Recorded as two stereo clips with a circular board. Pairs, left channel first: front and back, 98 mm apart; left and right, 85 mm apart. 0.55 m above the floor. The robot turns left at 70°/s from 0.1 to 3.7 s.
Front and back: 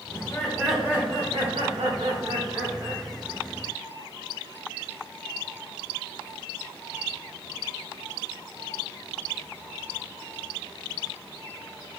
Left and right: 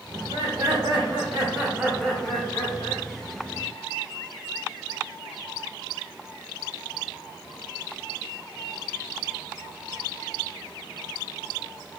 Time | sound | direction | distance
0.1 | laughter | 55° right | 2.5 m